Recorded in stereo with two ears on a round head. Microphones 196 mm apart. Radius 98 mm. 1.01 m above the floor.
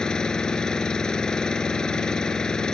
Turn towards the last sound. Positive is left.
turn(degrees=5)  # may be behind; listen again after turning